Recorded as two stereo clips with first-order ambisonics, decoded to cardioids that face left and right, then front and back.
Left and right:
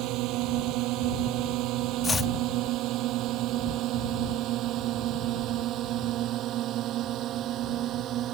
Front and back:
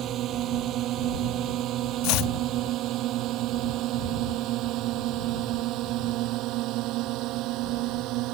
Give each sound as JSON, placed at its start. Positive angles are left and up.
{"t": 0.0, "sound": "a drone", "azimuth_deg": -125}
{"t": 2.0, "sound": "chopping", "azimuth_deg": 15}